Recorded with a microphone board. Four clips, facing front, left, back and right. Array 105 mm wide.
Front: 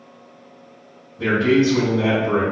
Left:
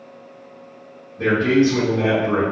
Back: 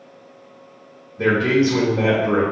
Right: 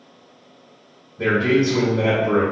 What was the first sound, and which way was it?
A man speaking, 175° left.